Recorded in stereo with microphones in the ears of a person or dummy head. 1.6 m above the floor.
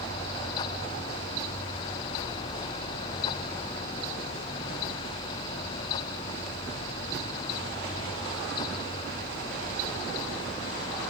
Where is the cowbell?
No cowbell in this recording.